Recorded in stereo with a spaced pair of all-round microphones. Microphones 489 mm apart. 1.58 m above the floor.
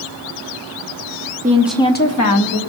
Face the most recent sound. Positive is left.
turn(degrees=55)  # may be behind; listen again after turning